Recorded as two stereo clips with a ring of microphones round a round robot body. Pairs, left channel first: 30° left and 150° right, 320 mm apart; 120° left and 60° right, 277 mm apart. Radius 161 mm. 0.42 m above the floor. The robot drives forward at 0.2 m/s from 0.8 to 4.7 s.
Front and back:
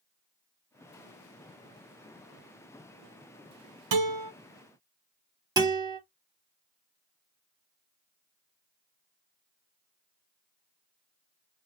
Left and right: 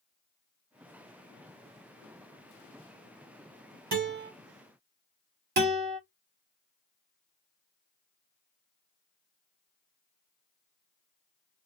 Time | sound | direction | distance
3.9 | a guitar | 115° right | 1.6 m
5.6 | a guitar | 80° right | 1.3 m